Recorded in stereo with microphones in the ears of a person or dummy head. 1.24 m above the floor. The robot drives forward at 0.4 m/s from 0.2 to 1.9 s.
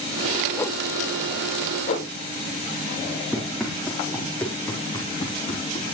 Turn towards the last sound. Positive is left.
turn(degrees=35)  # may be behind; listen again after turning